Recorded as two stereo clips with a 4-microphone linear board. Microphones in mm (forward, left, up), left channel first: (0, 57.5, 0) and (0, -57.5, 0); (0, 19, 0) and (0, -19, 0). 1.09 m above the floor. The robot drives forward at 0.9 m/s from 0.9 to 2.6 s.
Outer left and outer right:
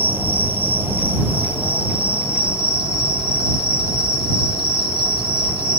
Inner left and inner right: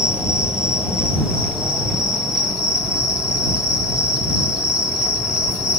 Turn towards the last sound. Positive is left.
turn(degrees=-10)  # may be behind; listen again after turning